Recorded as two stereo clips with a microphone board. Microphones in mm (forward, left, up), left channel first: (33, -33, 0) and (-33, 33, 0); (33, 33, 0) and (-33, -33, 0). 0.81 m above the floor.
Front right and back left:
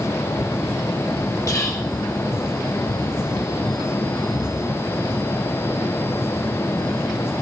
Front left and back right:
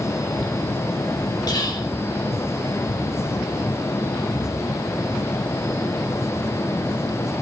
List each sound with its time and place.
1.5 s whispering: 10° left, 3 m